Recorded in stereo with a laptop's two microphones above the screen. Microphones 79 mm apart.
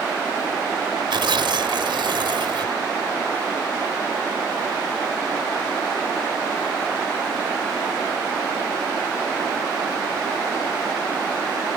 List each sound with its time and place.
1.1 s tearing paper: 80° right